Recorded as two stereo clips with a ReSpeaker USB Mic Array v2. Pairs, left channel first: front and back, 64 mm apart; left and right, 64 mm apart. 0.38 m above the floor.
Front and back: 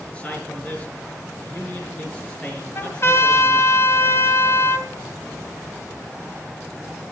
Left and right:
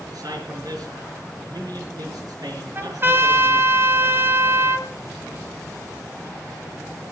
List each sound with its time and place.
0.1 s a man speaking: 70° right, 5.5 m
2.8 s a trumpet: 40° right, 2.5 m